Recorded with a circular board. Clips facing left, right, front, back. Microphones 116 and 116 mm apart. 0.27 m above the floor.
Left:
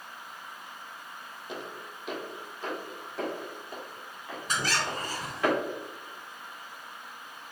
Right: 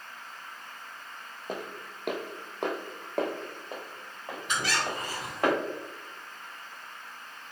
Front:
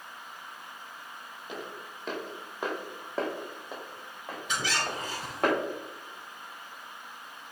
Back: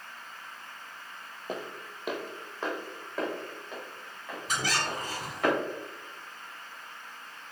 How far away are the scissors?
No scissors in this recording.